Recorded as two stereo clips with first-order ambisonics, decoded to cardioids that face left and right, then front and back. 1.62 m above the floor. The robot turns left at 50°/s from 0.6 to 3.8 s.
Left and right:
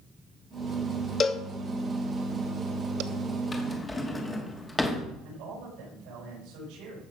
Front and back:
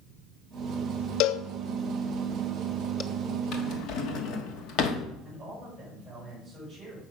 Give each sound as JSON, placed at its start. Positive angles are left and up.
{"t": 1.2, "sound": "a cowbell", "azimuth_deg": 30, "distance_m": 0.8}
{"t": 3.5, "sound": "a drawer", "azimuth_deg": 25, "distance_m": 1.4}
{"t": 5.2, "sound": "a man speaking", "azimuth_deg": -95, "distance_m": 7.0}